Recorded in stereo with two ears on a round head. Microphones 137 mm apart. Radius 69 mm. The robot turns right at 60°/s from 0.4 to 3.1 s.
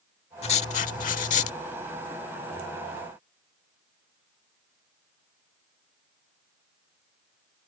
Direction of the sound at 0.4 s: 50° left.